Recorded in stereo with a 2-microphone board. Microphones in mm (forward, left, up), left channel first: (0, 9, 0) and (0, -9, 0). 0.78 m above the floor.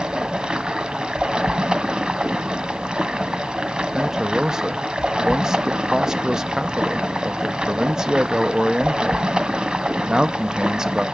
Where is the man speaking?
35° right (ahead or behind), 0.7 m.